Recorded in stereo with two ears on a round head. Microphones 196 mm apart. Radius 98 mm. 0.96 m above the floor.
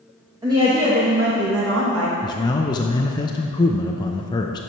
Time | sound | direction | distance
0.4 | a woman speaking | 15° right (ahead or behind) | 1.2 m
2.2 | a man speaking | 20° left (ahead or behind) | 0.5 m